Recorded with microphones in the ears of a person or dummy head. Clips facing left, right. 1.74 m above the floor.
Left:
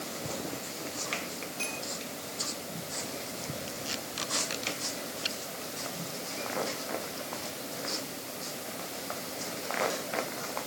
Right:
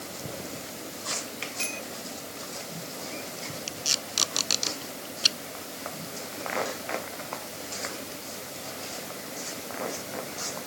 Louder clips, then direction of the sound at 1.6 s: Right 1 dB; 30° right (ahead or behind).